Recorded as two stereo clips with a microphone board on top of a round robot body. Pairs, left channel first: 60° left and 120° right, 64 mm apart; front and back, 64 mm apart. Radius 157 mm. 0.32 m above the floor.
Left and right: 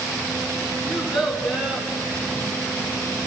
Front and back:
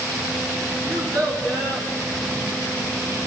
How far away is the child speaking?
About 4 m.